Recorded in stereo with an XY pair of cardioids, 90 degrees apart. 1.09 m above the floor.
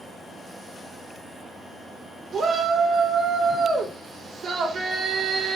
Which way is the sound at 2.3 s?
50° right.